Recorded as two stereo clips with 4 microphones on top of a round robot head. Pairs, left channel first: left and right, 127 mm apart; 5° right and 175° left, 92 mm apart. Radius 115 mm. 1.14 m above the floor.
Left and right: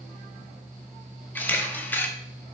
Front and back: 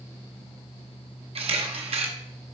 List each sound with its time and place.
1.4 s a camera shutter: 165° left, 1.3 m